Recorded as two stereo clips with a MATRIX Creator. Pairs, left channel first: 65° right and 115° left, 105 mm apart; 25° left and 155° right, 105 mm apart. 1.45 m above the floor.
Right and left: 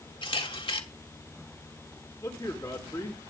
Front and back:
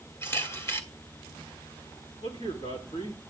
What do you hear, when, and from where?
0.2 s a camera shutter: 40° right, 2.5 m
2.2 s a man speaking: 5° right, 3.5 m